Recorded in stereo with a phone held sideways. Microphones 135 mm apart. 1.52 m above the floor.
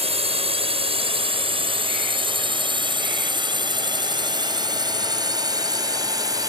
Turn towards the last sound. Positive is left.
turn(degrees=-30)  # may be behind; listen again after turning